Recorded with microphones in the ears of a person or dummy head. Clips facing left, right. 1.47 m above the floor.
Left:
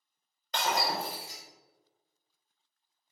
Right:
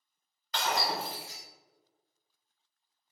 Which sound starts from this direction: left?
Breaking glass, at 0.5 s.